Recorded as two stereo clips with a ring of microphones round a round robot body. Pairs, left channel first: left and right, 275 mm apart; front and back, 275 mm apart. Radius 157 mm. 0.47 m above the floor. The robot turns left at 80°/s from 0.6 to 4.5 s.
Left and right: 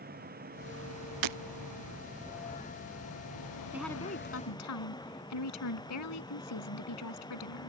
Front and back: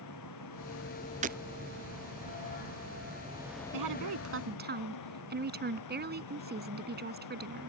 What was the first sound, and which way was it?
An engine running, 35° right.